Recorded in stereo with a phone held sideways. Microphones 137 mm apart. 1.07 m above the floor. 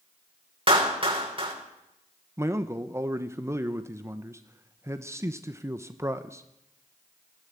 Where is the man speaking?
20° right (ahead or behind), 1.0 m.